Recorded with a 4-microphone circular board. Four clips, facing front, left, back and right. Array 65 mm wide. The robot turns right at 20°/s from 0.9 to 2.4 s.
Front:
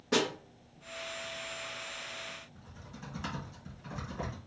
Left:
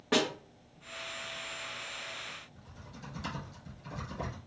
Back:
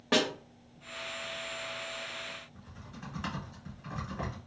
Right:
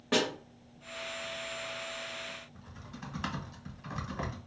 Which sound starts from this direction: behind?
A snare drum, at 0.1 s.